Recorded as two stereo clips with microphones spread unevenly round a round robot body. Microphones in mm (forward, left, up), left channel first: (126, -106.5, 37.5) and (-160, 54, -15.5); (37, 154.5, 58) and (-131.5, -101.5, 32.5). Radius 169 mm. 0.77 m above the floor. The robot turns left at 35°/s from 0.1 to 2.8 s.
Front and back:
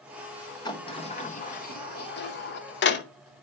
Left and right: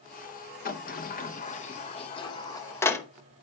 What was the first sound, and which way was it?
A sliding door, 50° left.